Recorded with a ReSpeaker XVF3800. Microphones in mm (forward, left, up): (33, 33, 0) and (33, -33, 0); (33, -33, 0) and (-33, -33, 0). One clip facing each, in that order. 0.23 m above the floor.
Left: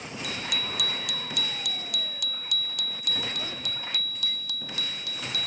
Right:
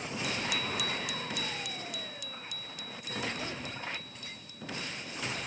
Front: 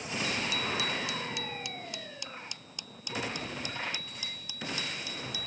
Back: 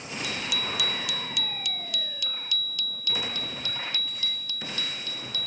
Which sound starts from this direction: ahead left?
A bicycle bell, at 0.2 s.